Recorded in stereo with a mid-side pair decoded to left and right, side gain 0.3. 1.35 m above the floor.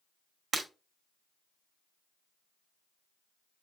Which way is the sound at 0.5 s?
65° right.